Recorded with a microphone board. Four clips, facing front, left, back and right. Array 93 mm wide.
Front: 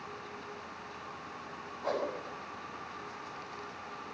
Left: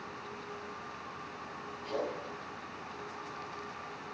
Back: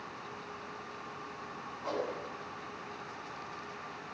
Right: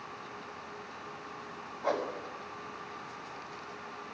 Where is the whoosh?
70° right, 6 m.